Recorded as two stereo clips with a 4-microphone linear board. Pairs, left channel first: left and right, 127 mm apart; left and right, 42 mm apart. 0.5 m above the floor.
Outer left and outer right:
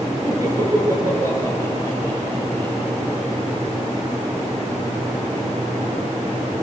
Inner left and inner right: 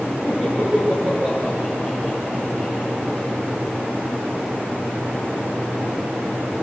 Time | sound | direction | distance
0.2 | laughter | 25° right (ahead or behind) | 6 m